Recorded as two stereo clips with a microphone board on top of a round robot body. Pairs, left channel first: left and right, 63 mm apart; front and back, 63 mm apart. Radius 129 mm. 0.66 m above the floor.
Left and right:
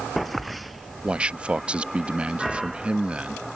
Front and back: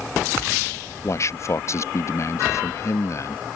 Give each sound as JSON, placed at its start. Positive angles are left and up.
{"t": 1.0, "sound": "a man speaking", "azimuth_deg": -20}